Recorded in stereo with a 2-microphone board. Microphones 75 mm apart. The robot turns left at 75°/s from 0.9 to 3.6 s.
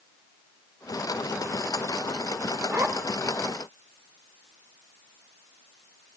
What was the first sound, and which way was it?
A zipper, 30° right (ahead or behind).